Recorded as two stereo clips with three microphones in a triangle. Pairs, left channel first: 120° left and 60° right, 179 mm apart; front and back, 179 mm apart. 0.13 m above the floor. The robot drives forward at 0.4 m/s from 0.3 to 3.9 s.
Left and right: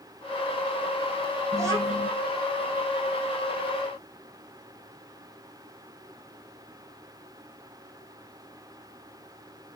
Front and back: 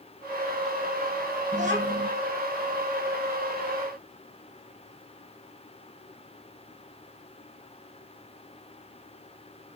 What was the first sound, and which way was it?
A child speaking, 130° right.